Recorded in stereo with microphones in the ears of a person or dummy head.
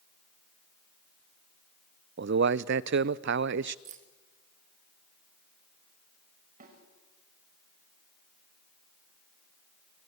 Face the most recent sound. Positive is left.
turn(degrees=-45)  # may be behind; listen again after turning